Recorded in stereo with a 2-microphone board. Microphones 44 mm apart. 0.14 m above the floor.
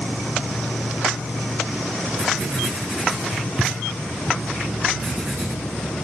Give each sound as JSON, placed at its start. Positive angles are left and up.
{"t": 0.0, "sound": "an insect", "side_deg": 75, "distance_m": 0.7}
{"t": 2.2, "sound": "writing", "side_deg": -25, "distance_m": 6.0}